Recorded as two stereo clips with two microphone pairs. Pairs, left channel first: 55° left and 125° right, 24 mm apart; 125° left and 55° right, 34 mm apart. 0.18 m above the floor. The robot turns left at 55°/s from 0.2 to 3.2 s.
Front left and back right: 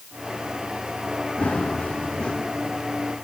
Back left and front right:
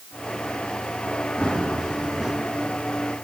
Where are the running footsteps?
70° left, 5.5 m; by 2.3 s 15° left, 5.5 m.